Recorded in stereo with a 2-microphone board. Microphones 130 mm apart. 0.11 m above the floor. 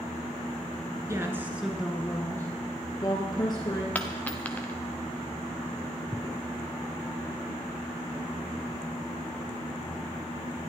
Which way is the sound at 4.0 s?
10° left (ahead or behind).